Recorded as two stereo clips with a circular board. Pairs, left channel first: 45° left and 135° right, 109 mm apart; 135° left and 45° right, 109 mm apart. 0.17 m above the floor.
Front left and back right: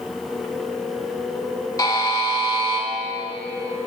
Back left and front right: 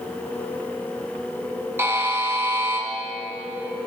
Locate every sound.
1.8 s a buzzer: 10° left, 0.7 m